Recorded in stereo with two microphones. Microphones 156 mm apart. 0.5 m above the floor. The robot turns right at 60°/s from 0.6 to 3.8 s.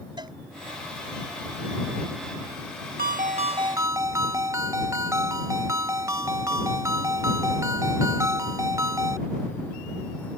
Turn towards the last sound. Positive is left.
turn(degrees=-20)